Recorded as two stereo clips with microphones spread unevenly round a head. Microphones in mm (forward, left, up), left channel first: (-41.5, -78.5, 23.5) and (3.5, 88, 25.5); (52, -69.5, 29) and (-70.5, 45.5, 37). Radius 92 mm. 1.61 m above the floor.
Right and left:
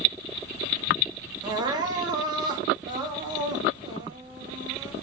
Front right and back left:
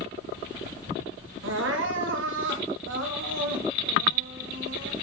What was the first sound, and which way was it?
Crying, 140° left.